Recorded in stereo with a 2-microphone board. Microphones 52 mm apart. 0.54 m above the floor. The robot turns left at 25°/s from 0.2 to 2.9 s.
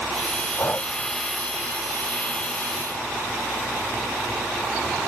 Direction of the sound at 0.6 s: 40° left (ahead or behind).